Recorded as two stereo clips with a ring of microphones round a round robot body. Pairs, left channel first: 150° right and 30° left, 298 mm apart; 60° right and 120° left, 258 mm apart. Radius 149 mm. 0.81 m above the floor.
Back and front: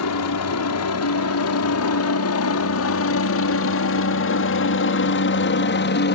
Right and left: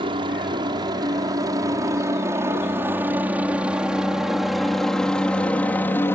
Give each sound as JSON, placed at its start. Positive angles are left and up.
{"t": 0.0, "sound": "a helicopter", "azimuth_deg": -170}